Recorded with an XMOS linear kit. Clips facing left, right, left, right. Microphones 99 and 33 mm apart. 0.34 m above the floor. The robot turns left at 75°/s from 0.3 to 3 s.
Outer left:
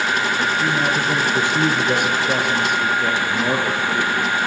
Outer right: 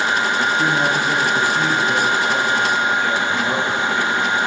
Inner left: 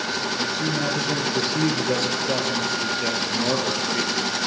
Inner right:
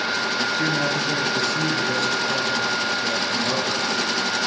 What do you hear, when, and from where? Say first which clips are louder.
0.6 s a man speaking: outer right 2 dB, inner right 2 dB; 135° right, 7.5 m; by 4.3 s 40° left, 7.5 m